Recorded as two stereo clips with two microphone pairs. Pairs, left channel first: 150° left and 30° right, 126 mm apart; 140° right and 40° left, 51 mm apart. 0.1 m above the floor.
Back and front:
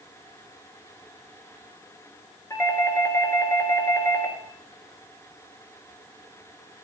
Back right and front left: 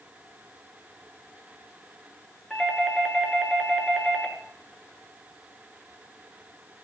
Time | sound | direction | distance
2.5 | a doorbell | 145° left | 1.6 m